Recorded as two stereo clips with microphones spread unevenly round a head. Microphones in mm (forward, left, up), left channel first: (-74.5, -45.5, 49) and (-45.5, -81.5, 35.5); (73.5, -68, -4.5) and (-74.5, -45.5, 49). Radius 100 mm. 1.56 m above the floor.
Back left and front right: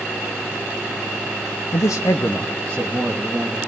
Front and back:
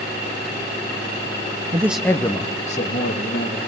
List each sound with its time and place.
1.7 s a man speaking: 100° left, 0.8 m; by 3.6 s 30° left, 2.5 m